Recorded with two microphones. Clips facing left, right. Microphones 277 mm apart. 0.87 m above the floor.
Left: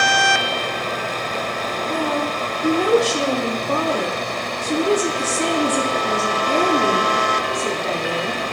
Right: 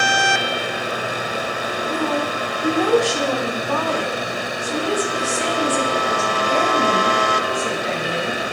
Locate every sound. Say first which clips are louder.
1.9 s a woman speaking: even; 10° left (ahead or behind), 2 m; by 8.4 s 60° left (ahead or behind), 2.5 m